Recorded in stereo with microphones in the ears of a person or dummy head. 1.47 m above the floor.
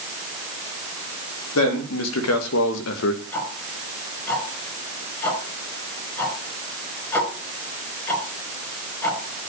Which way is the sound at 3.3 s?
15° left (ahead or behind).